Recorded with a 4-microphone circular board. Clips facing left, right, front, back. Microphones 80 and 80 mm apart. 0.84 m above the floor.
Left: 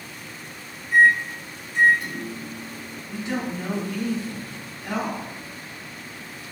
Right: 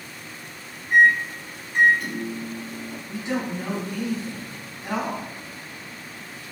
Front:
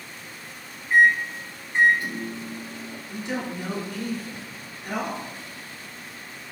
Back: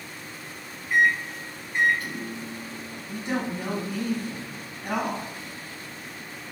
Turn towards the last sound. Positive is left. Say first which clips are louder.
# even, back 2 dB
turn(degrees=-155)